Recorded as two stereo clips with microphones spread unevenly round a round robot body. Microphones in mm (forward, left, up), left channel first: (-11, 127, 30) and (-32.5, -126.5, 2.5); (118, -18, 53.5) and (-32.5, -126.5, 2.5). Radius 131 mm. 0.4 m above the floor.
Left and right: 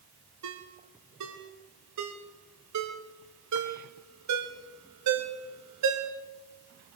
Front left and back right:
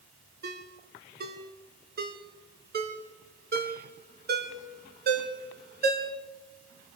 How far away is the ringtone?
About 2.5 m.